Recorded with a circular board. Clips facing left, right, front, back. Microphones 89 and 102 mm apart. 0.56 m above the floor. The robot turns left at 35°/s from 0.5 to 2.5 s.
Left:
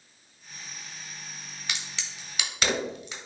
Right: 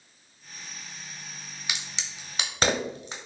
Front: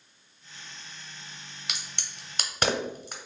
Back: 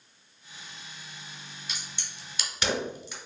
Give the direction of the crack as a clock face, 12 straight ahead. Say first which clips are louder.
Even, front 2 dB; 12 o'clock.